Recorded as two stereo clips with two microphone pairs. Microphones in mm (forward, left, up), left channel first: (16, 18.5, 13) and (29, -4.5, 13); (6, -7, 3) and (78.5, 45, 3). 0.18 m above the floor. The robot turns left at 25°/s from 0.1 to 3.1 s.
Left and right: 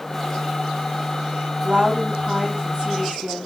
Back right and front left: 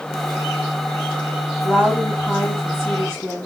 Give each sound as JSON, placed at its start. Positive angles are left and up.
{"t": 1.6, "sound": "a woman speaking", "azimuth_deg": -55, "distance_m": 2.0}